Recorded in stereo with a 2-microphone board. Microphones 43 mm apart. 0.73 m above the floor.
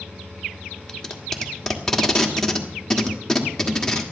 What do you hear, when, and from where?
0.9 s tape being pulled: 10° left (ahead or behind), 1.6 m